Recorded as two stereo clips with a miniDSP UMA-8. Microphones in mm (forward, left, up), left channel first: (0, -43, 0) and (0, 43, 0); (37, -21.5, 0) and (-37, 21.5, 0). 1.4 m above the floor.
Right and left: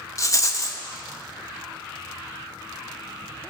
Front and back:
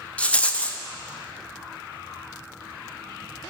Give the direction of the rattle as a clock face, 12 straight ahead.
3 o'clock.